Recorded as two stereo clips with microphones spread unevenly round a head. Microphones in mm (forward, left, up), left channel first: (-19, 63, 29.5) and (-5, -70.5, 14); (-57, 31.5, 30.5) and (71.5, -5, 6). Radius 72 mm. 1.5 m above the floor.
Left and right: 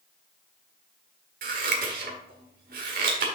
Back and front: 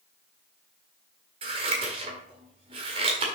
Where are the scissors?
70° right, 1.6 m.